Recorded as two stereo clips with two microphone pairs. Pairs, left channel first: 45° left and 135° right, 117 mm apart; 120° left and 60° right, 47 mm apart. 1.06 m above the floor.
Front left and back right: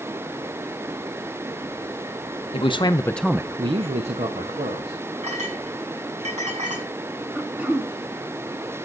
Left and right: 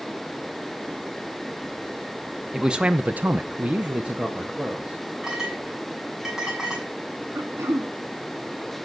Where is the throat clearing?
55° right, 1.7 m.